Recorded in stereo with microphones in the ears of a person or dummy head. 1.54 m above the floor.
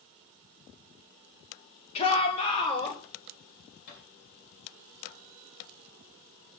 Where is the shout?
35° left (ahead or behind), 2.5 m; by 3.0 s 30° left (ahead or behind), 3.5 m.